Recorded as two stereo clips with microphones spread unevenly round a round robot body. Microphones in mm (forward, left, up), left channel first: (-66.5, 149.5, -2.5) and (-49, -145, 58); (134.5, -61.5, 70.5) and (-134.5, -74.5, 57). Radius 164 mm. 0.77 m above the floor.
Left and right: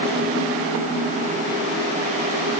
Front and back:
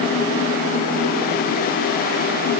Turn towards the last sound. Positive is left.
No sound to turn to.